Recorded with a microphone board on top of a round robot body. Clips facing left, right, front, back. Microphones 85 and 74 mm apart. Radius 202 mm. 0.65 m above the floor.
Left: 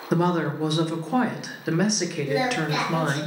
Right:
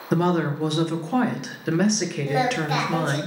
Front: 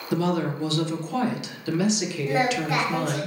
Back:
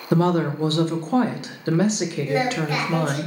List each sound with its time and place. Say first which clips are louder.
0.1 s a woman speaking: right 1 dB, back 5 dB; 175° left, 0.5 m
2.3 s singing: right 2 dB, front 1 dB; 75° right, 1.3 m